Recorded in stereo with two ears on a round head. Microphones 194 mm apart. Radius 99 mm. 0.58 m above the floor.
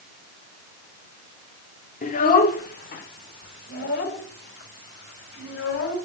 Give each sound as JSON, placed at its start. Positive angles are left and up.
{"t": 2.0, "sound": "a child speaking", "side_deg": 35, "distance_m": 1.0}